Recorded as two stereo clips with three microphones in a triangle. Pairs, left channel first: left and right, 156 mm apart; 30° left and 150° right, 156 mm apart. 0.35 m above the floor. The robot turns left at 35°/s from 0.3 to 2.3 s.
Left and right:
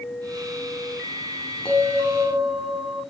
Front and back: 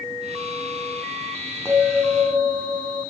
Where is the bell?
140° left, 2.5 m; by 3.0 s 115° left, 2.5 m.